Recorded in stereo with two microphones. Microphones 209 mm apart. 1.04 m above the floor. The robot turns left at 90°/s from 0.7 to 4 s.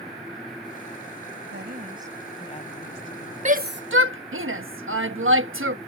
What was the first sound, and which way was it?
A woman speaking, 115° right.